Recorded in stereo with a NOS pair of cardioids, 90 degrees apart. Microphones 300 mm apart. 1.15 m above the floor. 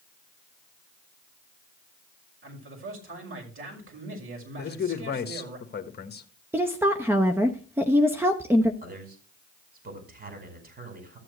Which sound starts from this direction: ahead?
A woman speaking, at 6.5 s.